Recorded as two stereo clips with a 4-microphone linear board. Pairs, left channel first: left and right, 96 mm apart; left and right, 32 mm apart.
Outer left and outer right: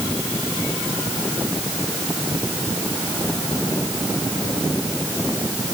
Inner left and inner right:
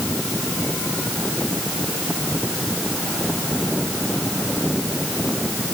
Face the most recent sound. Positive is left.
No sound to turn to.